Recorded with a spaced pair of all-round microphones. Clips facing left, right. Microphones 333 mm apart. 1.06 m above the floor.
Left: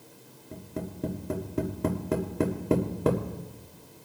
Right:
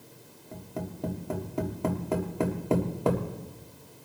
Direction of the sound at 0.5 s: 25° left (ahead or behind).